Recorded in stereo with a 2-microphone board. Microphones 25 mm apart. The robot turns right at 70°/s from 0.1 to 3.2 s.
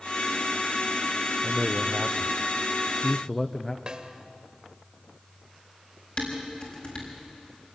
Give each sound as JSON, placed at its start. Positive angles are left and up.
{"t": 1.4, "sound": "a man speaking", "azimuth_deg": -105, "distance_m": 0.9}
{"t": 3.9, "sound": "a snare drum", "side_deg": -30, "distance_m": 1.8}
{"t": 6.2, "sound": "dishes clattering", "side_deg": 40, "distance_m": 6.0}